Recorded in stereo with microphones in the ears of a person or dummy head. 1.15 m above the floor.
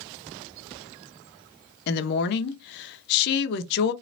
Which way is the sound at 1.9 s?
55° left (ahead or behind).